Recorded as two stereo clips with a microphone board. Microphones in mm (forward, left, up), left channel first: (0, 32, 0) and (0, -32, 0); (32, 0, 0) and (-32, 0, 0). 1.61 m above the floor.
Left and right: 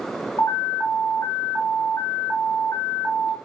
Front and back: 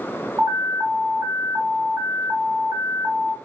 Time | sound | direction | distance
0.4 | an alarm | 130° left | 4 m